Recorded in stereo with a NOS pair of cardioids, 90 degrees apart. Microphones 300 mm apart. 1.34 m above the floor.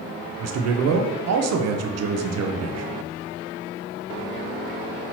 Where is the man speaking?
60° right, 0.7 m.